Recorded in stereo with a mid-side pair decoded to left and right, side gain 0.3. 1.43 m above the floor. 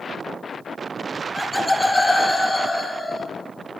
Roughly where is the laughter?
Ahead.